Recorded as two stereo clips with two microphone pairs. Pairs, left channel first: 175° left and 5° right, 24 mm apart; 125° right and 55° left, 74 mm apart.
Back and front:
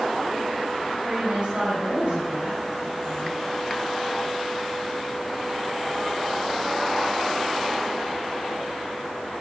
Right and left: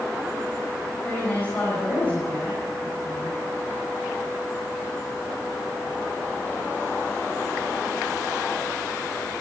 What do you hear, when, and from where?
1.0 s a woman speaking: 50° right, 5.5 m